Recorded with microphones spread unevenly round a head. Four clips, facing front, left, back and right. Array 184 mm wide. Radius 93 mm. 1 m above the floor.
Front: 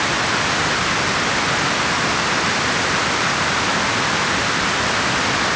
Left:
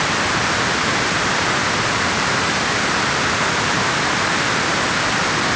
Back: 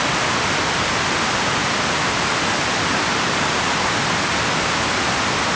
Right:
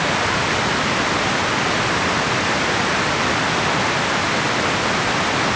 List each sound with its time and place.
Only background noise.